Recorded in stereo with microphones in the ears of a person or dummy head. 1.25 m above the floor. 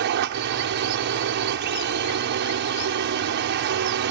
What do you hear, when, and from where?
0.0 s a drone: 60° right (ahead or behind)